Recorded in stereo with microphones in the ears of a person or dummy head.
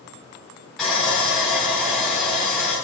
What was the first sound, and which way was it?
Sawing, centre (ahead or behind).